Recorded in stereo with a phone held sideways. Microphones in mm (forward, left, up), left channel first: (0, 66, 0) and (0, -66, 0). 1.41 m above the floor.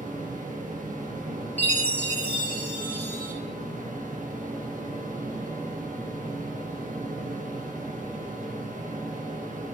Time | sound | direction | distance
0.0 | a fan | 80° right | 1.6 m
1.6 | a chime | 15° left (ahead or behind) | 2.5 m